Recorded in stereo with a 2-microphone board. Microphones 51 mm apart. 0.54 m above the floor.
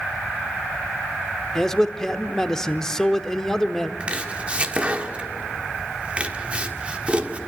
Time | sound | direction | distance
1.6 | a man speaking | 10° left (ahead or behind) | 1.0 m
4.0 | chopping | 25° right (ahead or behind) | 1.4 m